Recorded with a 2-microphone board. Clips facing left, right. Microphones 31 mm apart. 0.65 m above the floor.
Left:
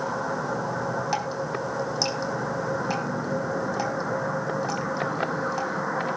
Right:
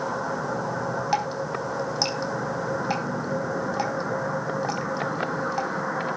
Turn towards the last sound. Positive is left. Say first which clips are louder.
# right 2 dB
turn(degrees=-10)  # may be behind; listen again after turning